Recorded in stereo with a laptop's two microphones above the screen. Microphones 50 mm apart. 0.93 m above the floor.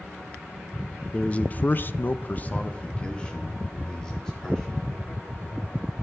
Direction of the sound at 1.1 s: 25° left (ahead or behind).